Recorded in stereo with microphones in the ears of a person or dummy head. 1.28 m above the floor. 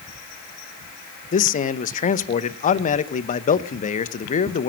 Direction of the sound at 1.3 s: 45° left (ahead or behind).